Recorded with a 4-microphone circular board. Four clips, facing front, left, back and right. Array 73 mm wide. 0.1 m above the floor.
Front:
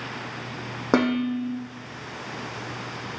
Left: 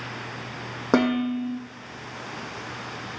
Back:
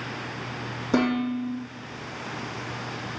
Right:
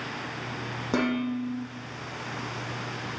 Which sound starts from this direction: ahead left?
Dishes clattering, at 0.9 s.